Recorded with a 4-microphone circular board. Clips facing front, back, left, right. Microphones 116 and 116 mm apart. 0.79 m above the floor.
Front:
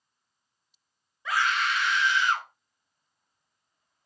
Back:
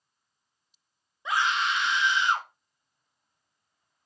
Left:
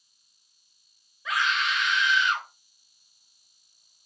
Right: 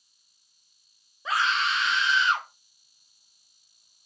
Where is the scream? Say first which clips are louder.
Even, right 1 dB; 125° right, 0.5 m.